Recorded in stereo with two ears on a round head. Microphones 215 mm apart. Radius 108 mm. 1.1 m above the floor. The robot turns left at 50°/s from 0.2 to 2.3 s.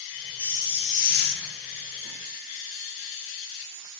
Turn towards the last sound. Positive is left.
turn(degrees=80)